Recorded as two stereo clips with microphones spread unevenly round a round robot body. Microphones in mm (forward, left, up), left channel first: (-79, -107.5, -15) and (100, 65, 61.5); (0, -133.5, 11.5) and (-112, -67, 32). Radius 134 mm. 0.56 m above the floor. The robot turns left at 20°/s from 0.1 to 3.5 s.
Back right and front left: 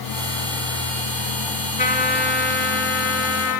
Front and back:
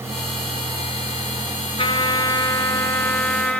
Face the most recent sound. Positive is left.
turn(degrees=-110)